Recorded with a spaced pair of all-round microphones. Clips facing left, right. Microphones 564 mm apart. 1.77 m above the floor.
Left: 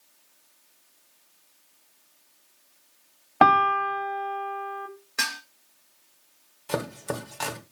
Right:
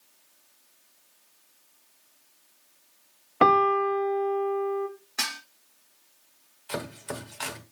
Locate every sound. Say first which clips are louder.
3.4 s a piano: right 3 dB; 15° left (ahead or behind), 0.7 m
5.2 s dishes clattering: left 1 dB; 10° right (ahead or behind), 1.5 m
6.7 s chopping: left 5 dB; 65° left (ahead or behind), 1.1 m